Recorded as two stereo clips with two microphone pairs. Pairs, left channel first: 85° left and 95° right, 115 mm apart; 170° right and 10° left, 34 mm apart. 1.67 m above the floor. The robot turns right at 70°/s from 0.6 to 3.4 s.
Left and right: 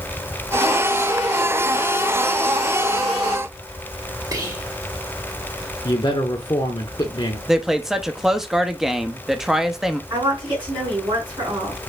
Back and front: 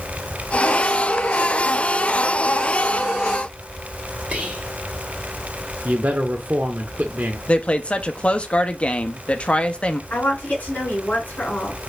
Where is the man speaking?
35° left, 0.7 m.